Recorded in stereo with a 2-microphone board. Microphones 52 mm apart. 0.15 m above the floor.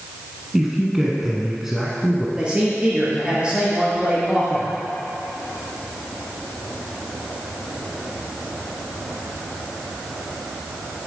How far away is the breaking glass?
I don't hear breaking glass.